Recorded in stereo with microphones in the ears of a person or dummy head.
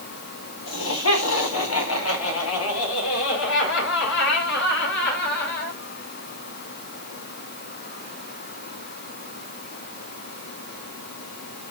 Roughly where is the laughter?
Left.